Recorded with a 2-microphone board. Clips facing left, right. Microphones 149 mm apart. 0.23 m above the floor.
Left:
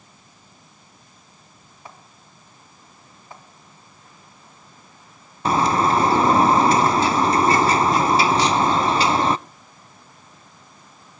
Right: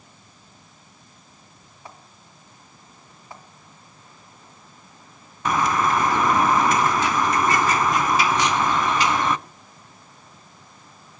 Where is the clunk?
I don't hear a clunk.